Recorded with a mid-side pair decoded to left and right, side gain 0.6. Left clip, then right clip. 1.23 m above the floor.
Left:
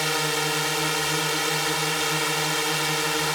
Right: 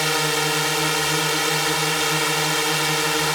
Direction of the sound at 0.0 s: 15° right.